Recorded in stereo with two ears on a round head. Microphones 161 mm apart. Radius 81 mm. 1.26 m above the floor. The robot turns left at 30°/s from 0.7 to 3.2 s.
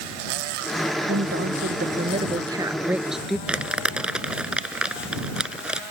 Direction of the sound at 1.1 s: 115° right.